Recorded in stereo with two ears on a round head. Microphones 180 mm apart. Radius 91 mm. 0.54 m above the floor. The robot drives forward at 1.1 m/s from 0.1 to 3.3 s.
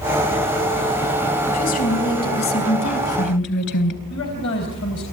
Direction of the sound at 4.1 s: 65° left (ahead or behind).